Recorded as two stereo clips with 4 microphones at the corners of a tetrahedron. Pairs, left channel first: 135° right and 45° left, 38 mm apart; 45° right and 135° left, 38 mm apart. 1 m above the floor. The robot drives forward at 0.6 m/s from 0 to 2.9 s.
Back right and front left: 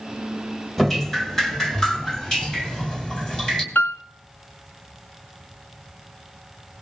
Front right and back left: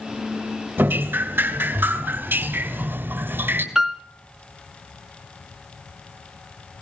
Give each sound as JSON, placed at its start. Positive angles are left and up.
{"t": 0.8, "sound": "dripping", "azimuth_deg": 140, "distance_m": 2.5}
{"t": 3.8, "sound": "a piano", "azimuth_deg": -145, "distance_m": 1.9}